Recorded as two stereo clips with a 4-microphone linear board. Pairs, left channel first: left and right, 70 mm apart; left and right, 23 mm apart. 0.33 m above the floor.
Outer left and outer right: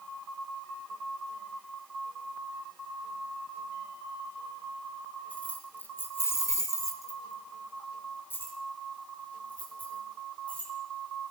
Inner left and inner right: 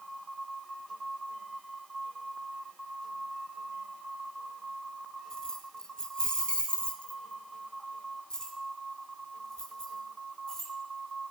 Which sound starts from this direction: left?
Keys jangling, at 5.3 s.